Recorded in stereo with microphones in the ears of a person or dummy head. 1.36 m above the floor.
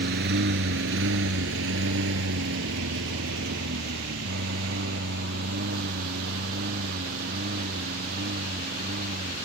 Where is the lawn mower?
65° right (ahead or behind); by 9.5 s 50° right (ahead or behind).